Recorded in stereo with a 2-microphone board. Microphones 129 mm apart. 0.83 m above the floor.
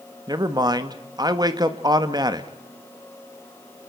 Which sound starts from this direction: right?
A man speaking, at 0.3 s.